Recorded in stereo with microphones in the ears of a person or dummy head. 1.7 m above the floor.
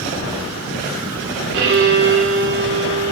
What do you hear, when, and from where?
1.5 s a violin: 65° right (ahead or behind), 6 m